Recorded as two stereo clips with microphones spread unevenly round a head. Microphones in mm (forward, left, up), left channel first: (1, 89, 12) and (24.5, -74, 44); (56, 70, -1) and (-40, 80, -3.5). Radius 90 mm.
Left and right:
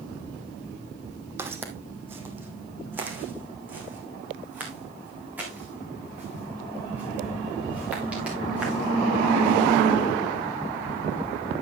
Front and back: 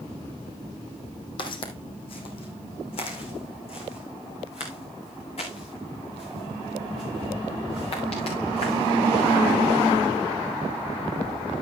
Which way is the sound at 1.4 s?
15° right.